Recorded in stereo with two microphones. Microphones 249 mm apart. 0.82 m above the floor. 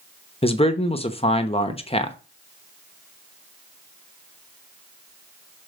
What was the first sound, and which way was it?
A man speaking, 20° left (ahead or behind).